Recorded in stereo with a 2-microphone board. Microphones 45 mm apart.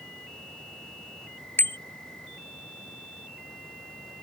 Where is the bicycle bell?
55° left (ahead or behind).